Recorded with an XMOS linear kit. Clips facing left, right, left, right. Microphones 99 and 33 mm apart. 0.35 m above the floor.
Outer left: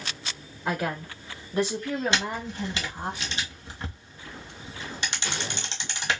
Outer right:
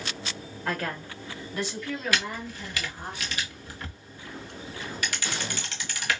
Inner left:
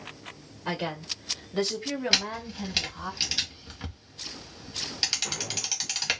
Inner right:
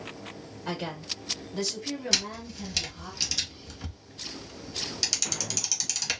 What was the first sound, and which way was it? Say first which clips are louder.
A woman speaking: outer left 3 dB, inner left 3 dB; 15° left (ahead or behind).